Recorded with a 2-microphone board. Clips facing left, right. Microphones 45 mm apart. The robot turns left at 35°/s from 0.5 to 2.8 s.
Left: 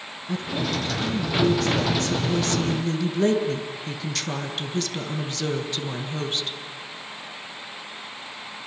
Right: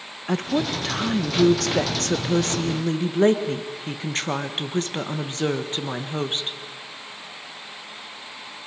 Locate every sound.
0.3 s a woman speaking: 70° right, 1.7 m; by 6.6 s 150° right, 1.7 m